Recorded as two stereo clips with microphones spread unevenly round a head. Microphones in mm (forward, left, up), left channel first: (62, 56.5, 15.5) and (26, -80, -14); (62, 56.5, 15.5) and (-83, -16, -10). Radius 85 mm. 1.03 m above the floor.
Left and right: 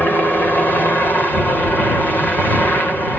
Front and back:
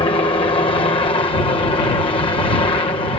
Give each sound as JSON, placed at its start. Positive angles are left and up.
{"t": 0.0, "sound": "a helicopter", "azimuth_deg": -10}